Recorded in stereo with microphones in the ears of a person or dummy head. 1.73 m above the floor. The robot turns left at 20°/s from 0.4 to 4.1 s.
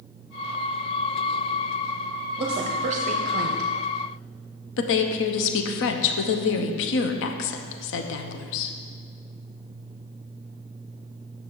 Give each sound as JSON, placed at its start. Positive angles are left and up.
{"t": 2.4, "sound": "a woman speaking", "side_deg": -30, "distance_m": 0.7}
{"t": 4.8, "sound": "a woman speaking", "side_deg": 70, "distance_m": 0.8}